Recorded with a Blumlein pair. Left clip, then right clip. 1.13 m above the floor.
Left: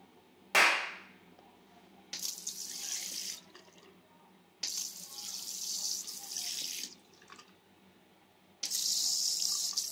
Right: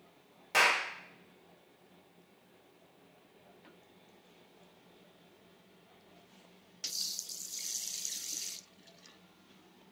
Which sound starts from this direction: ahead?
A clap, at 0.5 s.